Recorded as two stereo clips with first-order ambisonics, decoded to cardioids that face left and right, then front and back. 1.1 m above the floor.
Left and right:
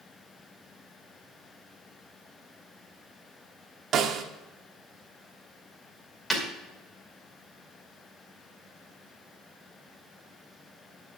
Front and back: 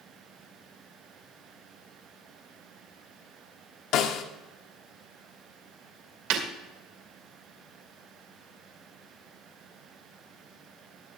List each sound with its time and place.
3.9 s a snare drum: 35° right, 1.1 m
6.3 s breaking glass: 170° left, 2.5 m